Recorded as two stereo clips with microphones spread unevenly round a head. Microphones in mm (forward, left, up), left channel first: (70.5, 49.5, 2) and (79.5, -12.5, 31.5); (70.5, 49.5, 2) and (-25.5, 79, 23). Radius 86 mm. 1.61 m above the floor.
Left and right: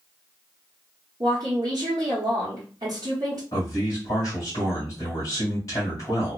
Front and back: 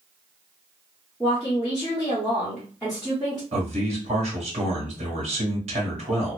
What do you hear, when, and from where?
1.2 s a woman speaking: 110° right, 0.8 m
3.5 s a man speaking: 150° left, 1.5 m